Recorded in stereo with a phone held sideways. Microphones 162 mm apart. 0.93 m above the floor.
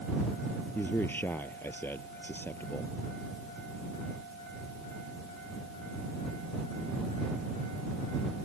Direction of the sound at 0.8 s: 10° left (ahead or behind).